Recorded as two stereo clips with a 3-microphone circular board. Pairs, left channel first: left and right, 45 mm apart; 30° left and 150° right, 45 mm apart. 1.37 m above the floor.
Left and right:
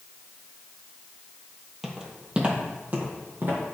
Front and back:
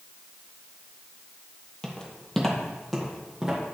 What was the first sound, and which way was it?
Footsteps, 10° right.